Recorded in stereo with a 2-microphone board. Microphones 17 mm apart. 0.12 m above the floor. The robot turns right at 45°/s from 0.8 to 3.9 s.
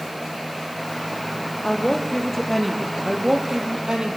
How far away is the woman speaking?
About 3.5 m.